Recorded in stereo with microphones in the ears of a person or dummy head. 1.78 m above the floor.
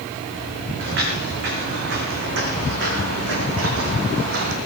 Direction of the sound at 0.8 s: 55° right (ahead or behind).